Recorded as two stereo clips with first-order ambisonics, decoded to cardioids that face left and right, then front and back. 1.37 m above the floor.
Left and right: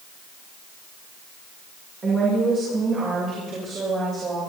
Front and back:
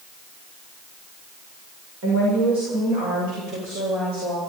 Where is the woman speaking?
155° right, 4.5 m.